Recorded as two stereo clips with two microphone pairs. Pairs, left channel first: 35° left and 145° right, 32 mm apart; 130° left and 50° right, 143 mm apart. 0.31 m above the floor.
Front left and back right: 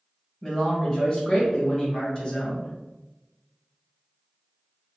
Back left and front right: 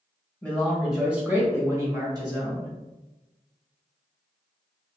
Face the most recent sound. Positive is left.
turn(degrees=-10)